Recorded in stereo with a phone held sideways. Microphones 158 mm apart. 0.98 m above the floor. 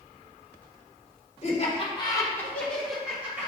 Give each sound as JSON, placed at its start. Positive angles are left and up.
{"t": 1.4, "sound": "laughter", "side_deg": 45, "distance_m": 1.2}